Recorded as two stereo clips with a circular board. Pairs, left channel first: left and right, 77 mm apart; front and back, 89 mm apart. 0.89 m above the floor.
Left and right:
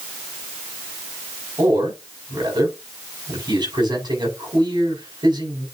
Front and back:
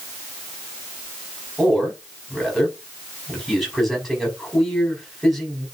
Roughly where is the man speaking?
Right.